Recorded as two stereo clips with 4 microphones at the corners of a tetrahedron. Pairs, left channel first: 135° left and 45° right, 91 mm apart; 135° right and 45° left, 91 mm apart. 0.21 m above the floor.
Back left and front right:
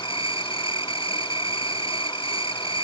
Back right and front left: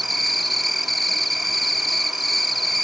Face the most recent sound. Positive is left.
turn(degrees=135)